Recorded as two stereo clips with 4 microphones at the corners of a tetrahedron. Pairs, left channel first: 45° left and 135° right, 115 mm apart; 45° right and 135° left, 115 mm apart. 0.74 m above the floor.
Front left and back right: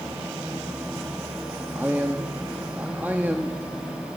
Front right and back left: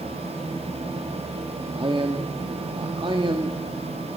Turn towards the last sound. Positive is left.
turn(degrees=155)